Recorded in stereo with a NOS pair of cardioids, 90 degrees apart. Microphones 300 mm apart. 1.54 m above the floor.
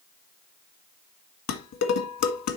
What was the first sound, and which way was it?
Dishes clattering, 65° left.